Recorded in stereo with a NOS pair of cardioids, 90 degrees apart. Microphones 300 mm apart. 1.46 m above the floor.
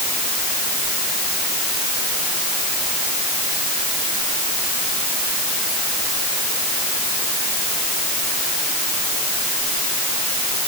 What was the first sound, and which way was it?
Only background noise.